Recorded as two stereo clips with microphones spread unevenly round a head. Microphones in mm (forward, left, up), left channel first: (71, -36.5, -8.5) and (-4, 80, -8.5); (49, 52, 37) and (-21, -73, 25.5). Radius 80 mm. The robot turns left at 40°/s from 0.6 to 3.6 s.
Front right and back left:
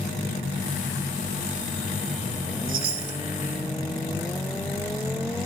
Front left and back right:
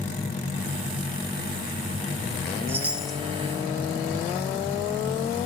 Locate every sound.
2.7 s a chime: 165° left, 0.9 m; by 3.2 s 145° left, 0.9 m